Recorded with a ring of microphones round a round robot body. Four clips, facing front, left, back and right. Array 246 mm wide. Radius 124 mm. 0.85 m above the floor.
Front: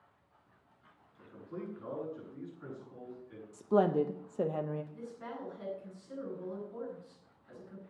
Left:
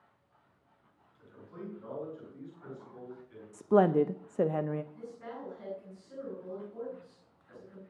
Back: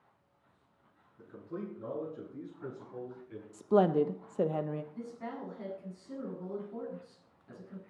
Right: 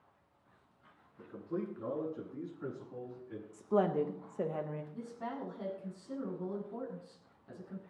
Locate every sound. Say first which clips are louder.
1.2 s a man speaking: right 7 dB, back 2 dB; 115° right, 9.5 m; by 3.4 s 110° right, 8 m
3.5 s a woman speaking: left 6 dB, back 2 dB; 110° left, 0.6 m
4.9 s a woman speaking: right 2 dB, back 2 dB; 120° right, 8 m